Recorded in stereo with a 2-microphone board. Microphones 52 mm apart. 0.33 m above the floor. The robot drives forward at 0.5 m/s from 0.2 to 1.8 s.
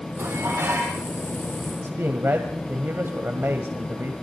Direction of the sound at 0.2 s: 55° right (ahead or behind).